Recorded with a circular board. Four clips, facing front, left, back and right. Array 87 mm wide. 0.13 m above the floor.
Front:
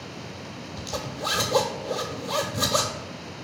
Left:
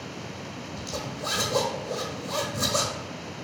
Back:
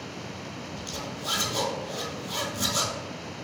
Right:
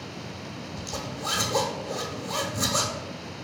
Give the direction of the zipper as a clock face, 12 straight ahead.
12 o'clock.